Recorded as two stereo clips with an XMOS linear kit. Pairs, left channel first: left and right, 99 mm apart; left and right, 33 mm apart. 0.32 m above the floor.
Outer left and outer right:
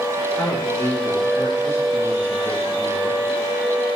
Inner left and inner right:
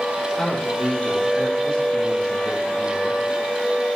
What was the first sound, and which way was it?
A man speaking, 30° left (ahead or behind).